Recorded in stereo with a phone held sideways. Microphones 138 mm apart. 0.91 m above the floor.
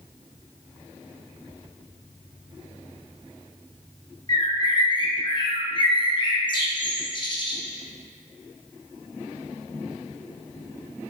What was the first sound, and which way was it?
A bird, 35° left (ahead or behind).